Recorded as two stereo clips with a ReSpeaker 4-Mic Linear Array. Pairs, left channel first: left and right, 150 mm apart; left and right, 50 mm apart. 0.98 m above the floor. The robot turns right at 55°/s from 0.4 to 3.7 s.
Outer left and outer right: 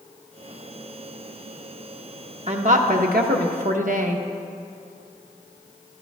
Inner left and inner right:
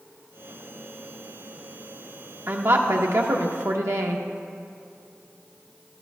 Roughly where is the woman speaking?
Behind right.